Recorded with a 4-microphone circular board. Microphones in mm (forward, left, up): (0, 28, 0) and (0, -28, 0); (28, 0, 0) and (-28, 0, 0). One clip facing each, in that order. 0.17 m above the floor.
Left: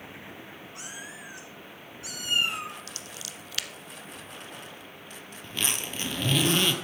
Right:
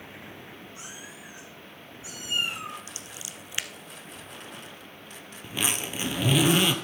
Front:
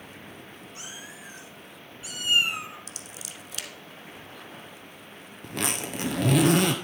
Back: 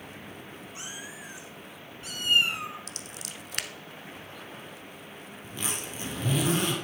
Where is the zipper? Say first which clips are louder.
Right 2 dB, front 6 dB; 10° right, 1.0 m.